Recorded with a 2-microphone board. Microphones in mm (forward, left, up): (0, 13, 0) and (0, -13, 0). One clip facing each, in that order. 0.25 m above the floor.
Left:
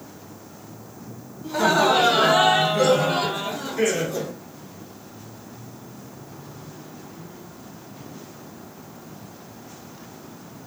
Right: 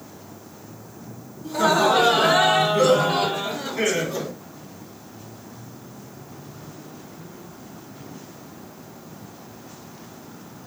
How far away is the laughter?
About 1.8 m.